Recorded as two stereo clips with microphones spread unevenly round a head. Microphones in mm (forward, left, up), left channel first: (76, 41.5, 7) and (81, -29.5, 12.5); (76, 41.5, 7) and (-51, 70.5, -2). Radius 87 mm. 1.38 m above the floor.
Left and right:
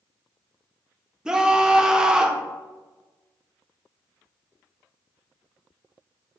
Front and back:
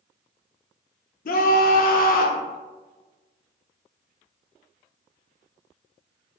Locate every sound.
1.2 s a scream: 5° right, 0.7 m